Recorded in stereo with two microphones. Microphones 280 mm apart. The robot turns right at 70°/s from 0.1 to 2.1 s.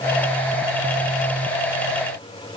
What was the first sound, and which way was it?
Only background noise.